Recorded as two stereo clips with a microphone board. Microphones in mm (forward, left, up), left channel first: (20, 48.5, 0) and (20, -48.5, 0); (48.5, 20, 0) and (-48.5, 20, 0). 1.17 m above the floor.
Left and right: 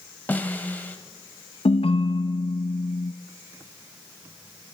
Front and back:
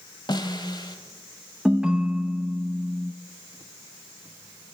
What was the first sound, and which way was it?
A snare drum, 20° left.